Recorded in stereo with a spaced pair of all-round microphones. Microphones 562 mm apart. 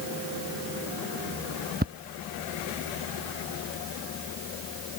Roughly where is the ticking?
Centre.